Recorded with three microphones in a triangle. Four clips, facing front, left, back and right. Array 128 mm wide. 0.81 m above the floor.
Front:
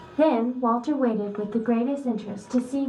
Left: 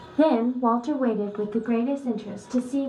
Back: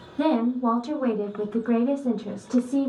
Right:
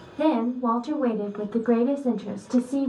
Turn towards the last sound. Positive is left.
turn(degrees=-120)